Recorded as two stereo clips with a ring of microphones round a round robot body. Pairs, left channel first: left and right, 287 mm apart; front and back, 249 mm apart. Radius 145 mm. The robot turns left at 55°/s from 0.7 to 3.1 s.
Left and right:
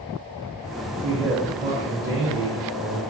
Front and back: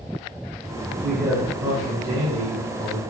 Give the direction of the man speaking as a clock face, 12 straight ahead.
3 o'clock.